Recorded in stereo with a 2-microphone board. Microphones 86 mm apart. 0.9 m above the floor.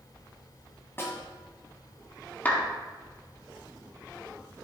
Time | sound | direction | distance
1.0 | a snare drum | 30° left (ahead or behind) | 2 m
2.5 | a clap | 20° left (ahead or behind) | 1.5 m